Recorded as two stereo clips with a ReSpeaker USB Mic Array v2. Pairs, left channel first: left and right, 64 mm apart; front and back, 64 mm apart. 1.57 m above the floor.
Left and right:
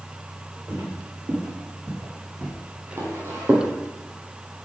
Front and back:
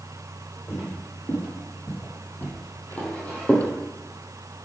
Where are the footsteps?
45° right, 3.5 m; by 3.7 s 70° right, 2.5 m.